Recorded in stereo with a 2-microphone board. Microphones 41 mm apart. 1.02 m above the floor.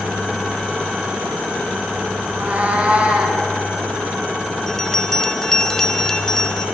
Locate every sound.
2.2 s a cat meowing: 40° right (ahead or behind), 3 m; by 3.4 s 25° right (ahead or behind), 3.5 m
4.7 s a bell: 10° left (ahead or behind), 1.0 m